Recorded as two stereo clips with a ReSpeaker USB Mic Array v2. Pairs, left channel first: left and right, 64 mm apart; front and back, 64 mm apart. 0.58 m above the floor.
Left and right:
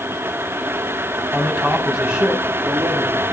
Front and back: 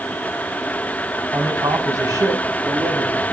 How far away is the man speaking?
About 5 m.